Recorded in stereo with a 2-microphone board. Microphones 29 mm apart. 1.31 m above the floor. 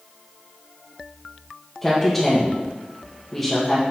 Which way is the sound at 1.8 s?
5° left (ahead or behind).